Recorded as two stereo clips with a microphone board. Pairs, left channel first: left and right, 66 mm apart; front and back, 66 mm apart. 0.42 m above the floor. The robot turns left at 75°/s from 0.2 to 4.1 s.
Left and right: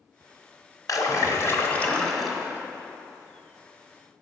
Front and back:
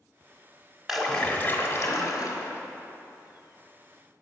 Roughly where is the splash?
Left.